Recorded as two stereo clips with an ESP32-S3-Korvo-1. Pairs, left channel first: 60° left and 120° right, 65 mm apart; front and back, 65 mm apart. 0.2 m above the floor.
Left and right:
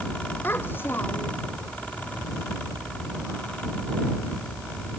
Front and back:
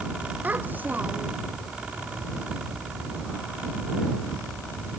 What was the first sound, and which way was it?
A child speaking, 120° left.